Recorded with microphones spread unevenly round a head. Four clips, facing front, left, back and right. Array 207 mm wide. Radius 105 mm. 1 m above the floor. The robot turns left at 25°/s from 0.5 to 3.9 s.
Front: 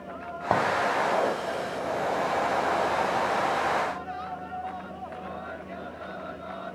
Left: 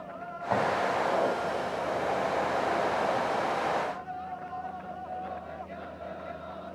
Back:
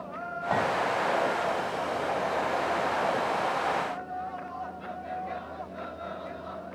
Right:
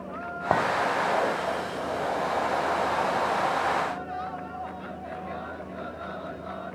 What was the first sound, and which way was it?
A clink, 60° right.